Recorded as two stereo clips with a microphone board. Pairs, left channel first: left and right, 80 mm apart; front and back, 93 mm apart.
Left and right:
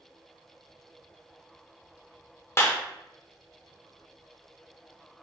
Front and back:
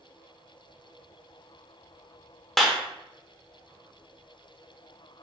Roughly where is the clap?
Left.